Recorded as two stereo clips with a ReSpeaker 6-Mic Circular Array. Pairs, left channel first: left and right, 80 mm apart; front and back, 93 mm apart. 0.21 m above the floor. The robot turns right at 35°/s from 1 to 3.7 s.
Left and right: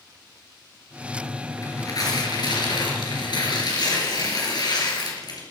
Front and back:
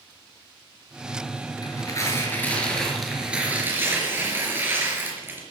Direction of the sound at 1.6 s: 40° left.